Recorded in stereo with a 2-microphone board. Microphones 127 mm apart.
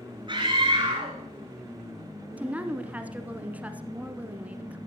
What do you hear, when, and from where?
0.3 s a scream: 40° right (ahead or behind), 2.5 m
2.4 s a woman speaking: 10° right (ahead or behind), 1.1 m